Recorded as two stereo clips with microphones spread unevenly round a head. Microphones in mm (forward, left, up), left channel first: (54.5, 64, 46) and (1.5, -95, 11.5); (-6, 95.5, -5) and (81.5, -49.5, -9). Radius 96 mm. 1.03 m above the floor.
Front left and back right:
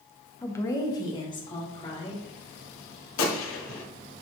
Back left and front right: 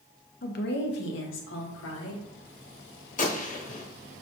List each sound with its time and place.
0.4 s a woman speaking: 155° left, 0.6 m; by 2.3 s 135° left, 1.6 m
3.2 s a gunshot: 75° left, 0.9 m